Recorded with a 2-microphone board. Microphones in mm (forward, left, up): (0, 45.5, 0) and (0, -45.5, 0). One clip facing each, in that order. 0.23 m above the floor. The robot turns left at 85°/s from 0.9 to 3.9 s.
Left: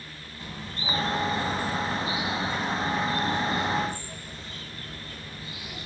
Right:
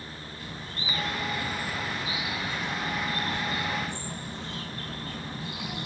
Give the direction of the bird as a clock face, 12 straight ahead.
7 o'clock.